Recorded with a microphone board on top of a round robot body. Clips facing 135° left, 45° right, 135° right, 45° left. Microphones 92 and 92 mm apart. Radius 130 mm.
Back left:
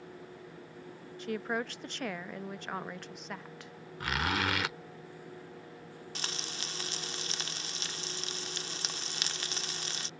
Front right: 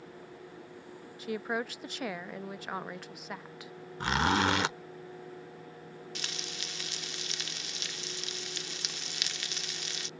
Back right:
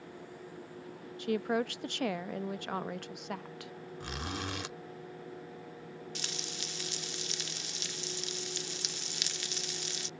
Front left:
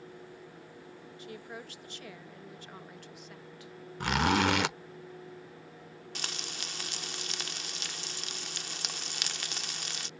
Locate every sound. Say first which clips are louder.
1.2 s a woman speaking: front right 1 dB, back right 14 dB; 130° right
4.0 s a zipper: front right 5 dB, front left 14 dB; 15° left
6.2 s frying: back left 3 dB, front left 1 dB; 85° left